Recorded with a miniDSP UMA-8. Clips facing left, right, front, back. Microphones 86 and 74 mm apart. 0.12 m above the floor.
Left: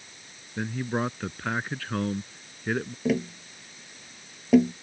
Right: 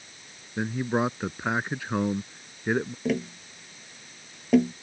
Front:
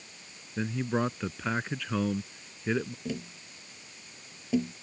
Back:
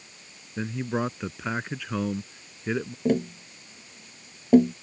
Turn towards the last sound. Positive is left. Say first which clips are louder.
# left 2 dB, back 12 dB
turn(degrees=175)